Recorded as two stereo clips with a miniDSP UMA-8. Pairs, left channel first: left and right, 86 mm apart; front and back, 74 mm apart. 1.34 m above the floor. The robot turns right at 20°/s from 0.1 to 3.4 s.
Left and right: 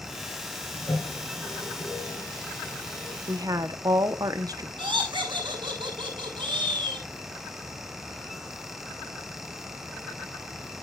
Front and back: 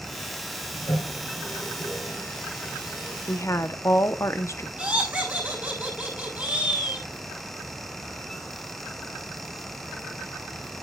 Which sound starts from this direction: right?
Laughter, at 4.8 s.